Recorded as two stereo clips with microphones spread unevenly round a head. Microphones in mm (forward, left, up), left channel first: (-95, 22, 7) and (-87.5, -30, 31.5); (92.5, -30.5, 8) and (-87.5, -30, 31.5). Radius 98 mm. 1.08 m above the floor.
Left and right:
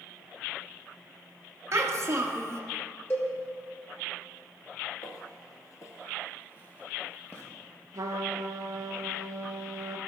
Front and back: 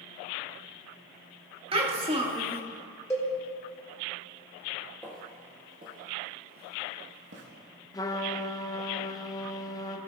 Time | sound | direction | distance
1.7 | a child speaking | 120° right | 1.6 m
3.1 | a cowbell | 70° left | 1.2 m
5.0 | footsteps | 85° left | 1.4 m
7.9 | a trumpet | 75° right | 0.6 m